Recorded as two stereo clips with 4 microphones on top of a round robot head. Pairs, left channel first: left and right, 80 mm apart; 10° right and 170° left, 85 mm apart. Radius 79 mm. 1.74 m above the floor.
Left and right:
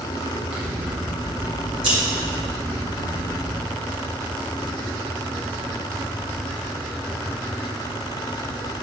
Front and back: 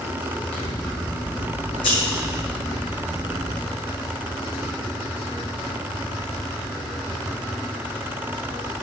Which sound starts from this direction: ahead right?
Scissors, at 0.5 s.